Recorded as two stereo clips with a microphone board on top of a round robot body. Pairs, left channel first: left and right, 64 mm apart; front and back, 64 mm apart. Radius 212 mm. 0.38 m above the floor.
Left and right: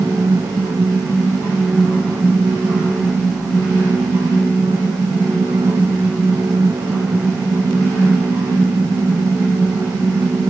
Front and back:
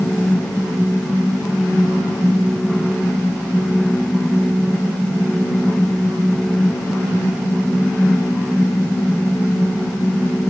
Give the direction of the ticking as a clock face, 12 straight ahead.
No ticking in this recording.